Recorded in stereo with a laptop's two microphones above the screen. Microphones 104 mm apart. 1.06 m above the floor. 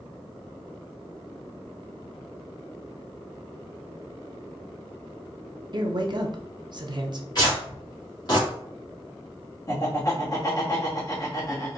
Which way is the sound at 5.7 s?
45° right (ahead or behind).